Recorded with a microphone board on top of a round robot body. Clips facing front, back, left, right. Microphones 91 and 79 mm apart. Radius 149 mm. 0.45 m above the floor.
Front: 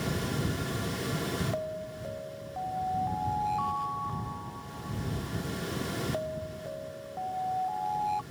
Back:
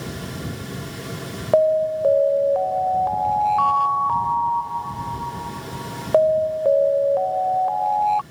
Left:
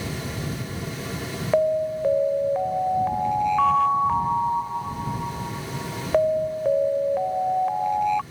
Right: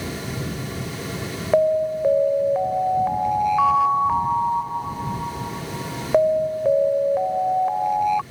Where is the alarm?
175° right.